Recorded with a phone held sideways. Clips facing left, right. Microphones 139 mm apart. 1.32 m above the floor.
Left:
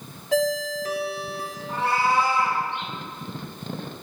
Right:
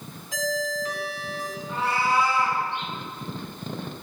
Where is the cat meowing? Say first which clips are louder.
Left 2 dB; 65° left (ahead or behind), 3 m.